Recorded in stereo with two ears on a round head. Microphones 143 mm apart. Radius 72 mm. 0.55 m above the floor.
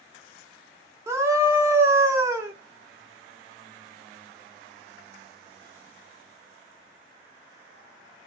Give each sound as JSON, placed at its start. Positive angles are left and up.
{"t": 1.1, "sound": "a scream", "side_deg": -15, "distance_m": 0.7}